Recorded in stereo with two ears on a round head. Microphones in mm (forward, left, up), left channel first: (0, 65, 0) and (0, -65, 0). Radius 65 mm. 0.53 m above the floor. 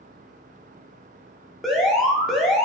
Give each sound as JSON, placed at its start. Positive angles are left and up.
{"t": 1.6, "sound": "an alarm", "side_deg": 0, "distance_m": 0.6}